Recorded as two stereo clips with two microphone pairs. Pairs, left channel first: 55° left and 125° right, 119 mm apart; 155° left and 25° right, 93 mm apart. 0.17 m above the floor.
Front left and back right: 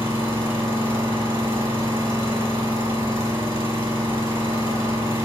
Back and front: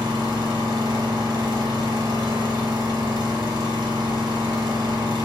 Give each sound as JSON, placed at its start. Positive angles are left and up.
{"t": 0.0, "sound": "an engine running", "azimuth_deg": -65, "distance_m": 0.9}